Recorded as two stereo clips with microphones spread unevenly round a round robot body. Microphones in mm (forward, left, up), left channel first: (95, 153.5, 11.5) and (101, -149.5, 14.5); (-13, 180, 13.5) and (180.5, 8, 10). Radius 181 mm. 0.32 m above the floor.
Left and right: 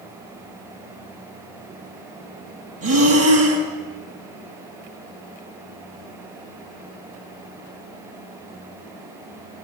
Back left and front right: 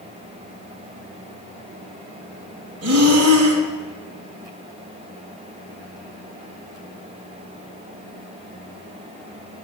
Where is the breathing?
55° right, 3 m.